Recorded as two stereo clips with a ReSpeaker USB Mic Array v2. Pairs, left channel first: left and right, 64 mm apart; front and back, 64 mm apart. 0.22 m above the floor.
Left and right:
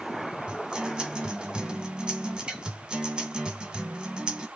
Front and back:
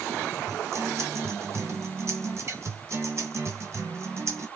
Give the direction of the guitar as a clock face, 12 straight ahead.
6 o'clock.